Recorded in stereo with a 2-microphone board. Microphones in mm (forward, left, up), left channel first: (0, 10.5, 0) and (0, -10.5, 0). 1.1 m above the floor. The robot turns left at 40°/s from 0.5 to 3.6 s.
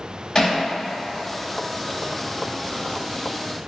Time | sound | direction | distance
0.3 | hammering | 35° left (ahead or behind) | 1.7 m